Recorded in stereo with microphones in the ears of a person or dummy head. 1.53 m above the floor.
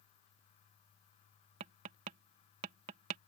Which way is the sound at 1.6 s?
40° right (ahead or behind).